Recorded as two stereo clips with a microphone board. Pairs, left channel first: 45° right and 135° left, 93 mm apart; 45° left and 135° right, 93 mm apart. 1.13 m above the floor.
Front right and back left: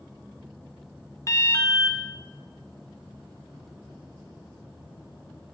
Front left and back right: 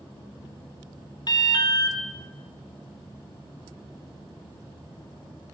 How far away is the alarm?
About 0.8 m.